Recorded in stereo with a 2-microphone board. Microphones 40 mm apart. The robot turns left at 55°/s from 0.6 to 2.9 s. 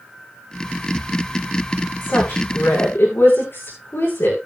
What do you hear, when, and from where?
2.0 s a woman speaking: 55° left (ahead or behind), 10 m; by 4.4 s 75° left (ahead or behind), 10 m